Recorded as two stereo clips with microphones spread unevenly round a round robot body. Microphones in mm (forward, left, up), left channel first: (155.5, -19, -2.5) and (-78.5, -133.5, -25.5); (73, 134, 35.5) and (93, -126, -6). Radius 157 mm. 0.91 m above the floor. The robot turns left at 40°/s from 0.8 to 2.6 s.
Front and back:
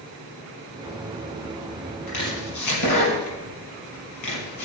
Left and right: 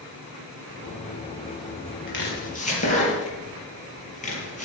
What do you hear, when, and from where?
2.1 s chopping: 55° left, 6 m; by 4.7 s 35° left, 6 m